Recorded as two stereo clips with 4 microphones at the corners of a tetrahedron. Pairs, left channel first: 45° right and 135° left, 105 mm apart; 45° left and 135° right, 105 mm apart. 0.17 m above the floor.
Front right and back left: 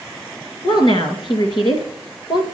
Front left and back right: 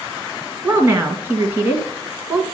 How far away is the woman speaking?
About 2 m.